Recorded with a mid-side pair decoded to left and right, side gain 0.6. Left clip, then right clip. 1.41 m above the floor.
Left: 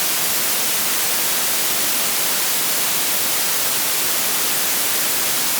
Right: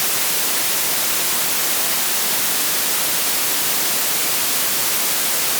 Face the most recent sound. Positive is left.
No sound to turn to.